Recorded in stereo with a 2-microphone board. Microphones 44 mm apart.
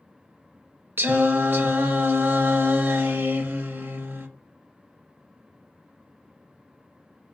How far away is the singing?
About 0.5 m.